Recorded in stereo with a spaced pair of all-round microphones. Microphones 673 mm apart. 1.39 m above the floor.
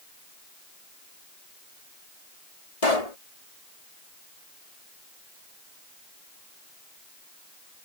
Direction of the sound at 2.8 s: 65° left (ahead or behind).